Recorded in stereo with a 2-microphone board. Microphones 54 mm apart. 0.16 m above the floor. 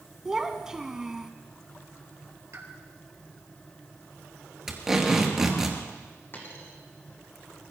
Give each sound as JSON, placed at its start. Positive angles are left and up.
{"t": 0.2, "sound": "a child speaking", "side_deg": -10, "distance_m": 0.8}
{"t": 2.5, "sound": "a pop", "side_deg": -65, "distance_m": 2.5}
{"t": 4.7, "sound": "tape being pulled", "side_deg": -10, "distance_m": 2.5}
{"t": 6.3, "sound": "a dropped coin", "side_deg": 40, "distance_m": 3.5}